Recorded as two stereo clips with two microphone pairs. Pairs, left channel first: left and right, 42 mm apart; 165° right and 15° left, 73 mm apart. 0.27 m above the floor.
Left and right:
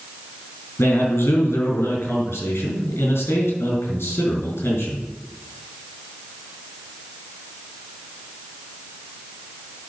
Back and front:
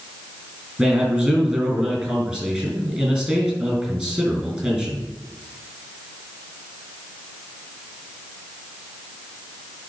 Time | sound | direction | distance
0.8 | a man speaking | 90° left | 4 m